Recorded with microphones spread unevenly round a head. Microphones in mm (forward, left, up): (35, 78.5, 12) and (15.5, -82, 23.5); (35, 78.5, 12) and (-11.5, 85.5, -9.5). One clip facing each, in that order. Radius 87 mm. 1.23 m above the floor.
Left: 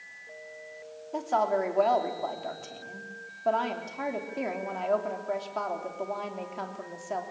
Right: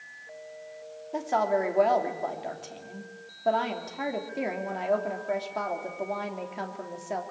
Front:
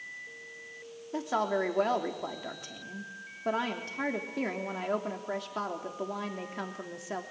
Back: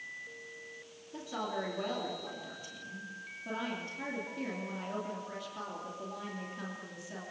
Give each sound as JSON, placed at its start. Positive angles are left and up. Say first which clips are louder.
{"t": 1.1, "sound": "a woman speaking", "louder": "right 1 dB, front 8 dB", "azimuth_deg": -15, "distance_m": 3.0}